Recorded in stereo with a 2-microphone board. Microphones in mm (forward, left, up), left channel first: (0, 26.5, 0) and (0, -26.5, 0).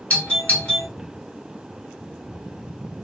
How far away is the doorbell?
About 1.9 m.